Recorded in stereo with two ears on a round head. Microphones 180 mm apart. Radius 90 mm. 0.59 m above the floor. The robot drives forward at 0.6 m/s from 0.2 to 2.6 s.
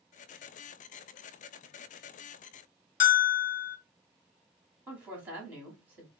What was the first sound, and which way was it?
A bell, 40° left (ahead or behind).